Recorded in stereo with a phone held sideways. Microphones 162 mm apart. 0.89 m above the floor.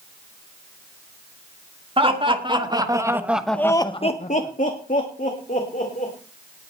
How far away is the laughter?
About 2.5 m.